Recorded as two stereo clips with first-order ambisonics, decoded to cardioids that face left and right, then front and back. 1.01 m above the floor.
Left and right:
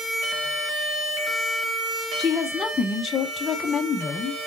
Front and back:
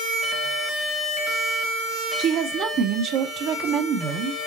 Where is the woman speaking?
155° left, 0.5 m.